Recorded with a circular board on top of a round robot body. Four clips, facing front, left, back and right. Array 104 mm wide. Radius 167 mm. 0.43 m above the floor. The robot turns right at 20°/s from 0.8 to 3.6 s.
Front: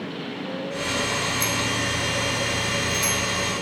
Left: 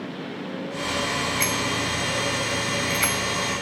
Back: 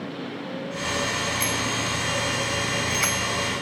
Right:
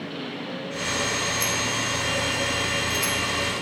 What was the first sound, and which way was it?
A bicycle bell, 95° left.